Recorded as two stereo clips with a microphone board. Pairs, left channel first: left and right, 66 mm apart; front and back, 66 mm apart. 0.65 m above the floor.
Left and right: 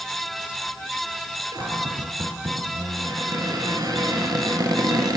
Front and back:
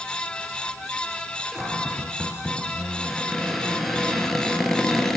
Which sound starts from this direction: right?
A cupboard door, at 1.5 s.